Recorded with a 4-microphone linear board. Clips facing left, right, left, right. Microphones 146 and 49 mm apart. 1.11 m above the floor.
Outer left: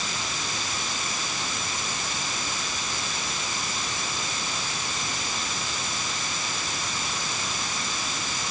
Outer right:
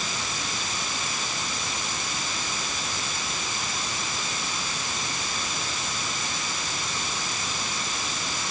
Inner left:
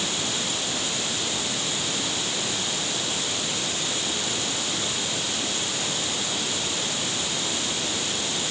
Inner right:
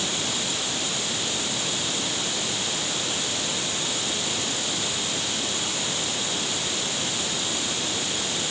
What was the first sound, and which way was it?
Only background noise.